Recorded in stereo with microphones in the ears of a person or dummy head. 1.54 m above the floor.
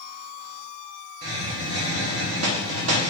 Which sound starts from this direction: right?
A hiss, at 1.2 s.